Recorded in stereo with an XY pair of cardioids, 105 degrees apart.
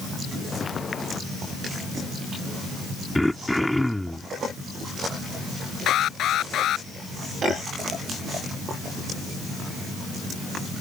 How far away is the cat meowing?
I don't hear a cat meowing.